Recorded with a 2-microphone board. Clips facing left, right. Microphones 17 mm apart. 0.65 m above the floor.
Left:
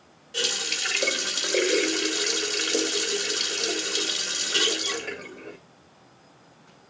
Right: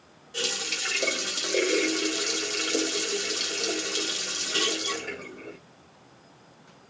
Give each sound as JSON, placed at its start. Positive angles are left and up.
{"t": 0.3, "sound": "a running tap", "side_deg": 20, "distance_m": 0.9}